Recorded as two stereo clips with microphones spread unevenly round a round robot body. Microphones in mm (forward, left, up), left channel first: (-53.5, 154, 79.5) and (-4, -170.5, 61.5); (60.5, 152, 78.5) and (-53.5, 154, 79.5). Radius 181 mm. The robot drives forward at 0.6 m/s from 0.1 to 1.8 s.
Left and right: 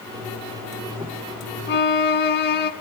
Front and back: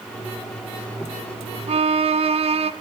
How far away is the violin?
About 1.3 m.